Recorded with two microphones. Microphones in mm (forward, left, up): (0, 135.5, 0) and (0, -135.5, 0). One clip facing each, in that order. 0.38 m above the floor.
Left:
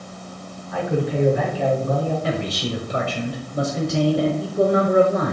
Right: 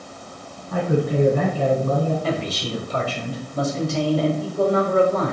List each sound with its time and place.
0.7 s a man speaking: 50° right (ahead or behind), 3.5 m
2.2 s a man speaking: 25° left (ahead or behind), 1.4 m